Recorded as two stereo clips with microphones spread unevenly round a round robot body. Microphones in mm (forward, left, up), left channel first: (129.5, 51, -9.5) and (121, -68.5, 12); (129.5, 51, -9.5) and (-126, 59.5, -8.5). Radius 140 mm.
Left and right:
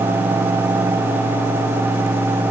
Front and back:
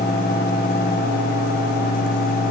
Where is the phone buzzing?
I don't hear a phone buzzing.